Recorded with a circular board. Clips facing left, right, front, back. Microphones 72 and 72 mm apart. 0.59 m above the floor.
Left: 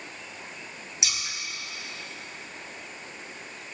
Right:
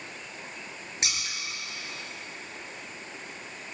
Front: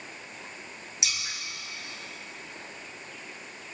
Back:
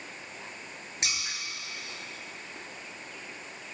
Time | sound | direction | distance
1.0 | scissors | 135° right | 4.5 m